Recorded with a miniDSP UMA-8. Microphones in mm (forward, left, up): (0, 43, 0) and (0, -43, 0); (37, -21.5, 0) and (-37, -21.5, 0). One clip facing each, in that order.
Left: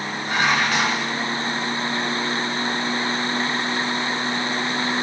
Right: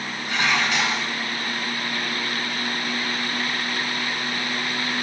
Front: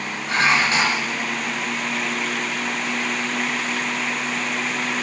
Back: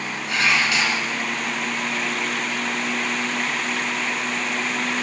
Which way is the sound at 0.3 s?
50° left.